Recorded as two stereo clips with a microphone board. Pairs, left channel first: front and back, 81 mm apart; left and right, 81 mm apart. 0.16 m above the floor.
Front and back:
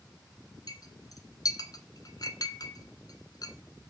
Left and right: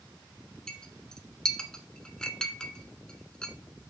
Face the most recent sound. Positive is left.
turn(degrees=10)